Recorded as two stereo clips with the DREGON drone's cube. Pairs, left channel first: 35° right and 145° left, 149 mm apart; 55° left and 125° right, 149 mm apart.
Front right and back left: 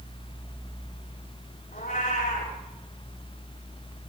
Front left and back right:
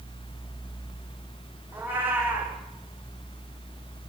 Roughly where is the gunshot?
No gunshot in this recording.